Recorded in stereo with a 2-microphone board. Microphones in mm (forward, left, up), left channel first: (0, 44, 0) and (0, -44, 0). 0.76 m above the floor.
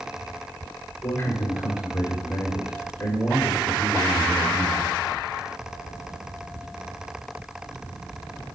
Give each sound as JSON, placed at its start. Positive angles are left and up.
{"t": 1.0, "sound": "a man speaking", "side_deg": 35, "distance_m": 1.6}